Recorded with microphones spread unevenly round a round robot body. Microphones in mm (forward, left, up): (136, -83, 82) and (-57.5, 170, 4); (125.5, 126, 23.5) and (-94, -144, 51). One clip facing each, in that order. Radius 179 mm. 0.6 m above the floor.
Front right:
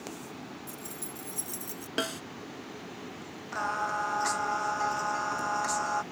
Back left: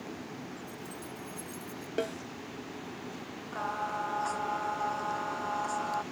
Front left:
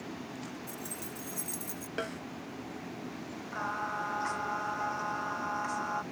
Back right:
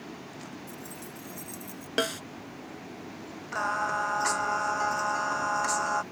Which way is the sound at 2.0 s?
105° right.